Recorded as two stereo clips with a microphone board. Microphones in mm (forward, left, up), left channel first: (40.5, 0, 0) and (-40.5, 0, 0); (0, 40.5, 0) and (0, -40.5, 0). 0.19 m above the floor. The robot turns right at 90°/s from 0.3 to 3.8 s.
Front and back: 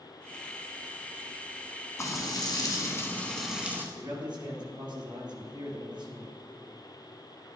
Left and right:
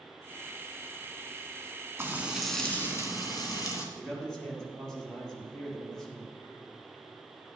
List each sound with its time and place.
2.0 s frying: 40° right, 1.7 m; by 3.9 s 125° left, 1.7 m
4.0 s a man speaking: 170° left, 3 m